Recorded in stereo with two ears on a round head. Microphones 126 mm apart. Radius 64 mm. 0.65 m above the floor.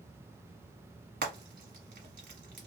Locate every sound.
1.2 s frying: 70° right (ahead or behind), 1.3 m